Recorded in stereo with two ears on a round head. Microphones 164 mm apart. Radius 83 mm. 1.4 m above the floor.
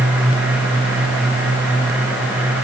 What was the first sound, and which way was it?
Only background noise.